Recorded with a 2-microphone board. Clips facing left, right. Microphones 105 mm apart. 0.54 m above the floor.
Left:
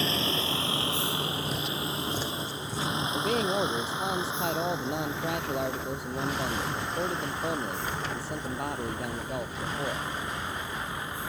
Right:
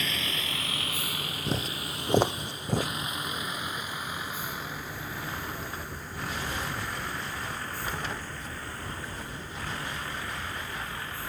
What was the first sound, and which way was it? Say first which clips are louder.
A vehicle: left 6 dB; 30° left (ahead or behind).